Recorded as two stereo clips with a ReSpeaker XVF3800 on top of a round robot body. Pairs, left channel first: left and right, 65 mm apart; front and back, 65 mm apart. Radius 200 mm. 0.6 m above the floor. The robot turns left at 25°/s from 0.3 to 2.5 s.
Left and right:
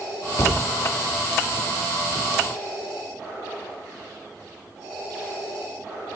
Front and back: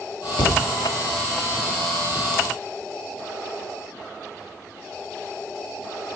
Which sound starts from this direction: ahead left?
A thud, at 0.4 s.